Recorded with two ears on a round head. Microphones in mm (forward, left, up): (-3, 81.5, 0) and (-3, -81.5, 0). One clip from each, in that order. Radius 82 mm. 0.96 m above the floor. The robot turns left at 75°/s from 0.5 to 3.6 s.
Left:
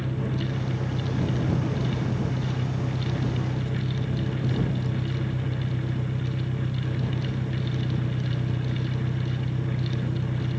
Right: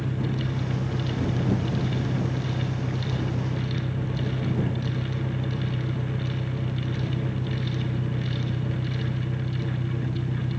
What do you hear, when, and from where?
0.0 s an engine running: 45° right; by 10.6 s 80° left